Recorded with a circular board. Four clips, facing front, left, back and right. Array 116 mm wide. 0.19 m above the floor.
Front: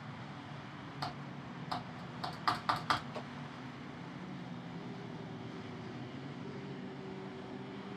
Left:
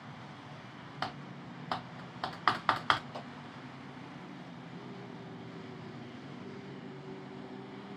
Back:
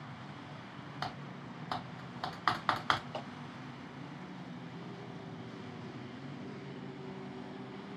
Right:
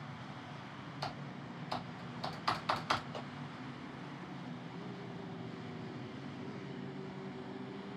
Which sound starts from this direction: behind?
A clap, at 3.1 s.